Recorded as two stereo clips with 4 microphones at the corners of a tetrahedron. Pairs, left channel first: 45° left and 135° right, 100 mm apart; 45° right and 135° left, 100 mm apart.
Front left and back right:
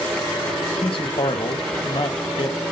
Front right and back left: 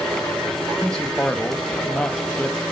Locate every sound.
0.8 s a man speaking: 35° left, 1.3 m